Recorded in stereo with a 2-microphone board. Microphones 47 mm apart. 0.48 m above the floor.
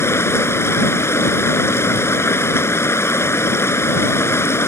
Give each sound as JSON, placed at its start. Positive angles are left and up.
{"t": 0.0, "sound": "running water", "side_deg": 70}